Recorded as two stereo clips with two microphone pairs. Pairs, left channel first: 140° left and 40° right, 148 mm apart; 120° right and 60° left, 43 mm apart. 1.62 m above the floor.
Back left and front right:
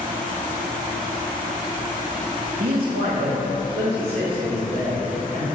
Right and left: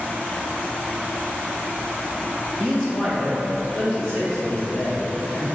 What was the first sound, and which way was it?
A man speaking, 45° right.